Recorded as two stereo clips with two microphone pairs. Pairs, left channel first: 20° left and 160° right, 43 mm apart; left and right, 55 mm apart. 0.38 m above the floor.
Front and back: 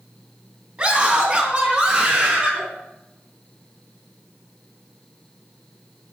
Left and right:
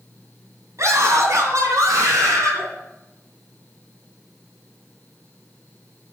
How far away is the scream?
About 3 m.